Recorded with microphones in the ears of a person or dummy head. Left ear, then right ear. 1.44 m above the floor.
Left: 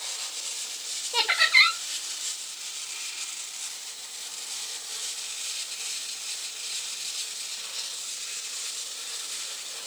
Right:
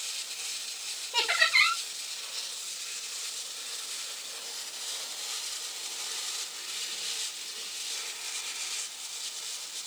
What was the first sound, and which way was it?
Laughter, 30° left (ahead or behind).